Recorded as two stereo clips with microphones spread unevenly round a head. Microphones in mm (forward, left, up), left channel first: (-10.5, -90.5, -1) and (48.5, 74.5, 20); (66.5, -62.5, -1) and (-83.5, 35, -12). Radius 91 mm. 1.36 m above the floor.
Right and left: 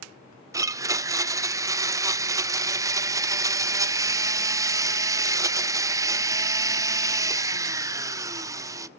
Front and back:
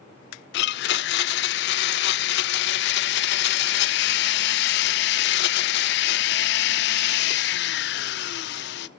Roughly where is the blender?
Ahead.